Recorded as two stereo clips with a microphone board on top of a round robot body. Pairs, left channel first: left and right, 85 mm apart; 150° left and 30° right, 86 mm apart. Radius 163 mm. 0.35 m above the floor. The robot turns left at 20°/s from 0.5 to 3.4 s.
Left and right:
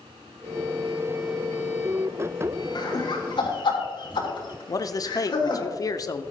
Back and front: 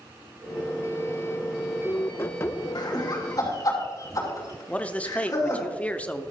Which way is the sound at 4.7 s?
80° left.